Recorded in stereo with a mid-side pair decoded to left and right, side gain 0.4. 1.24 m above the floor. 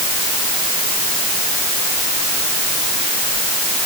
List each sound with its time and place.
Only background noise.